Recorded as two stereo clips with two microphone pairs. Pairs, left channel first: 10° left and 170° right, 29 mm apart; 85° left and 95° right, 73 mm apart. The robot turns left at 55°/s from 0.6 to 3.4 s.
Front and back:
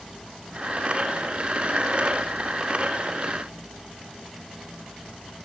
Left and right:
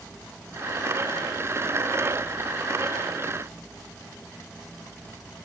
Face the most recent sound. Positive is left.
No sound to turn to.